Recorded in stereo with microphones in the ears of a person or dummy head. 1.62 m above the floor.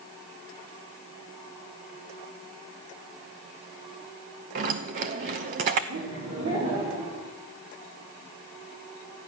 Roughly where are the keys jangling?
Right.